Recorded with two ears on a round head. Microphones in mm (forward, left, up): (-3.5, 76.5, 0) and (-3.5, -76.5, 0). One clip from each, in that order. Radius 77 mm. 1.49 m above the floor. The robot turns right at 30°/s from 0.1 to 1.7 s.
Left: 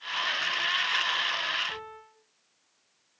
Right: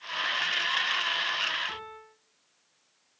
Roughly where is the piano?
Centre.